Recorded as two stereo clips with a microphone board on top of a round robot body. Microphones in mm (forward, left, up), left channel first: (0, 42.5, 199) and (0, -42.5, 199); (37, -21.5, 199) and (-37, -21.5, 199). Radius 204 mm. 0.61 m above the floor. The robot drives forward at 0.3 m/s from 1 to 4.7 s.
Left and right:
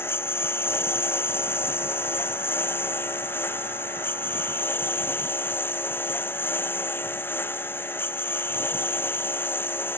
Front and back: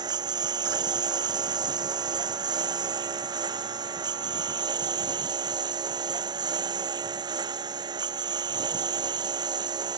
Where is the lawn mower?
155° left.